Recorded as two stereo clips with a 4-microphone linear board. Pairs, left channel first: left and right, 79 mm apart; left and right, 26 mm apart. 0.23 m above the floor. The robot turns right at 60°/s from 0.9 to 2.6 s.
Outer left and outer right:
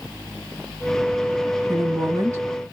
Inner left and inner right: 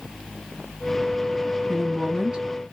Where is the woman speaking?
100° right, 1.8 m; by 2.6 s 45° right, 1.8 m.